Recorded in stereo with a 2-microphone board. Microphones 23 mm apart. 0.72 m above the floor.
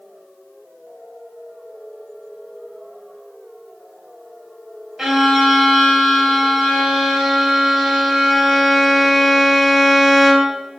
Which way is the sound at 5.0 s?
20° right (ahead or behind).